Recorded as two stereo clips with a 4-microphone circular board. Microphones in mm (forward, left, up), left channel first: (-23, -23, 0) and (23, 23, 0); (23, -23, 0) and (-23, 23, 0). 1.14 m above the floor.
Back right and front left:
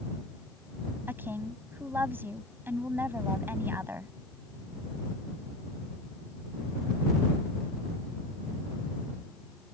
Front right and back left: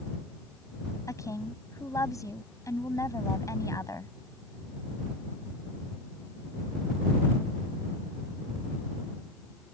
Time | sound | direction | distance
1.1 | a woman speaking | 10° right | ?